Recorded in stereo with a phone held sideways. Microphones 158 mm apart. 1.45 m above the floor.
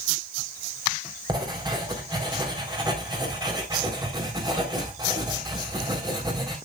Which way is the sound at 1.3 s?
30° right (ahead or behind).